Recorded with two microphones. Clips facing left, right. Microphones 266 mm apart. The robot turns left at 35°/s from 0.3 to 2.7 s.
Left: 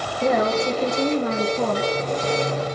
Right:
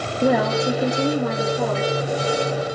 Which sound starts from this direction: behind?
A woman speaking, at 0.2 s.